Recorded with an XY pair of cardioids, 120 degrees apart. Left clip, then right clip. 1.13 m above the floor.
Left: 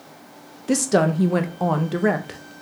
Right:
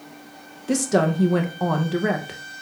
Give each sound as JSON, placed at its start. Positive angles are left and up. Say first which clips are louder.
{"t": 0.7, "sound": "a woman speaking", "louder": "left 1 dB", "azimuth_deg": 15, "distance_m": 0.6}